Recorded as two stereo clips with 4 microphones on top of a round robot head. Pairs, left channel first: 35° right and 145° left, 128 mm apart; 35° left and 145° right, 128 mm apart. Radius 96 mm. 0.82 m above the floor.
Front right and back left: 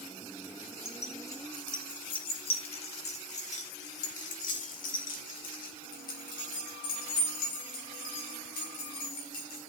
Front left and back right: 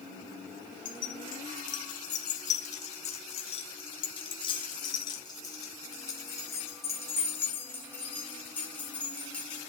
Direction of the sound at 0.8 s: 35° left.